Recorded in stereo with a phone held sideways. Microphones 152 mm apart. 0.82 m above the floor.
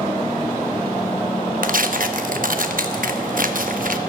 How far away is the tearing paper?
About 0.9 m.